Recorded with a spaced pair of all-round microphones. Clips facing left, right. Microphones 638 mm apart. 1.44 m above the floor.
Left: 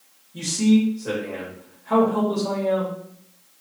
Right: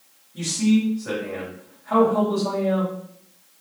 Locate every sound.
0.3 s a man speaking: 55° left (ahead or behind), 1.9 m